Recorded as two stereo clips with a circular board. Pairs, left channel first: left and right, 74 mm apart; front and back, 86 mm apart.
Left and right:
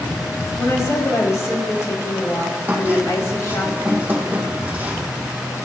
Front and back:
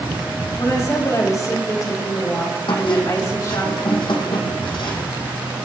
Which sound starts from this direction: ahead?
A squeak, at 2.7 s.